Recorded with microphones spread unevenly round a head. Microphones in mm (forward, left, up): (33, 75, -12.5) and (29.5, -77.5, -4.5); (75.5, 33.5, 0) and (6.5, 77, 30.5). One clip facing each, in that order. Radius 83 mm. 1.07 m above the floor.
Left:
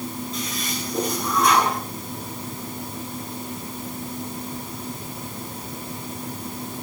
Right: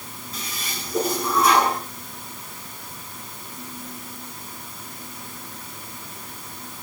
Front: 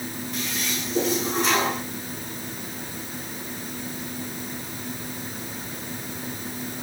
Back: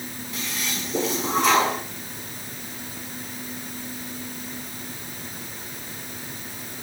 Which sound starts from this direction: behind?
A toilet flushing, at 0.3 s.